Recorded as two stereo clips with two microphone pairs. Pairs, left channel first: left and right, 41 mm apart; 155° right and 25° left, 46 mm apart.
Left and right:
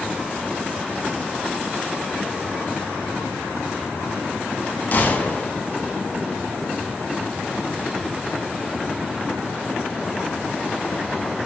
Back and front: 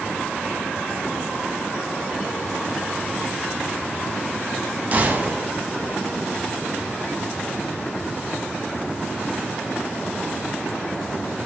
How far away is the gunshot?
About 0.5 m.